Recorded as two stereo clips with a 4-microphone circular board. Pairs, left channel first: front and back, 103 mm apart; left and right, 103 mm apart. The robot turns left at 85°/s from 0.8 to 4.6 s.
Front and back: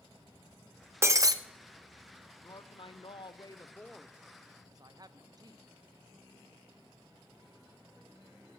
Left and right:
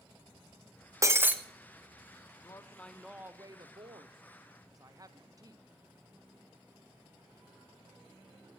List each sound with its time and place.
1.0 s breaking glass: 130° right, 0.7 m; by 1.4 s 160° right, 0.7 m
2.4 s a woman speaking: 50° left, 0.6 m; by 5.7 s 135° right, 0.6 m